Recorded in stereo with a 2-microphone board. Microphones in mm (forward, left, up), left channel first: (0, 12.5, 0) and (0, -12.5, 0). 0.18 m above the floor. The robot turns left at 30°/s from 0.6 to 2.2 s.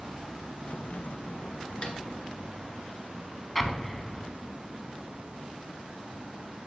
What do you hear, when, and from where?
1.8 s a snare drum: 35° left (ahead or behind), 1.8 m; by 2.0 s 30° left (ahead or behind), 1.8 m
3.5 s an explosion: 5° left (ahead or behind), 0.6 m